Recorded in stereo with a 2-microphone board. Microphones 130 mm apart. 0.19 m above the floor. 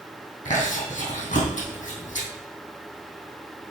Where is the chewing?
65° left (ahead or behind), 2.5 m.